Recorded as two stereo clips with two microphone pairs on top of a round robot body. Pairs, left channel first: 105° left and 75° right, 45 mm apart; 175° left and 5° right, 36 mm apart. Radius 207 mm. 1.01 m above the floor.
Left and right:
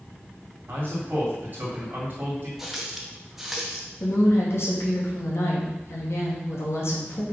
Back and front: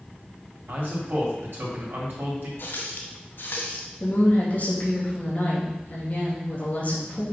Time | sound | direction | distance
0.7 | a man speaking | 25° right | 2.5 m
2.6 | a running tap | 155° right | 1.0 m
4.0 | a woman speaking | 120° left | 2.5 m